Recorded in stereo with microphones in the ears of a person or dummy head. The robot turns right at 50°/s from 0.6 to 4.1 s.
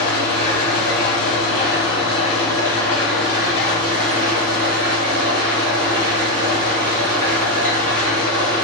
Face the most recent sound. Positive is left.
turn(degrees=-135)